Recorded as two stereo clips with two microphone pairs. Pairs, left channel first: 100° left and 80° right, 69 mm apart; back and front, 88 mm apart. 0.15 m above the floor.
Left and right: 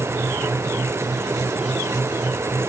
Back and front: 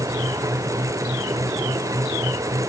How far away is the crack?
No crack in this recording.